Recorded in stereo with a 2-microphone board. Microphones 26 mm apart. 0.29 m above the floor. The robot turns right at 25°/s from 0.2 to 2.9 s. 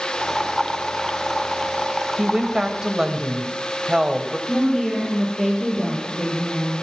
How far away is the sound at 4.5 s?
About 7.5 m.